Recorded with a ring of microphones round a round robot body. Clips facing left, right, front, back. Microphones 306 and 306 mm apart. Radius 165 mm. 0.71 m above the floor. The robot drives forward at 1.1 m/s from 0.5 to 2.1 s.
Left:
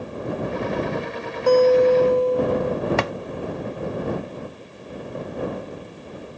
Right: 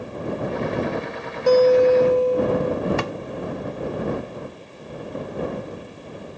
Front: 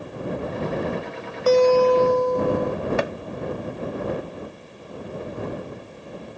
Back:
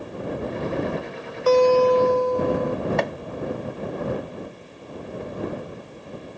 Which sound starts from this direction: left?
Chopping, at 3.0 s.